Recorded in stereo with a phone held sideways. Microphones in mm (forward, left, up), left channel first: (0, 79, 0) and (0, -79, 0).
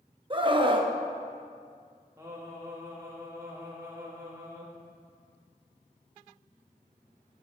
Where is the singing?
20° right (ahead or behind), 1.4 m.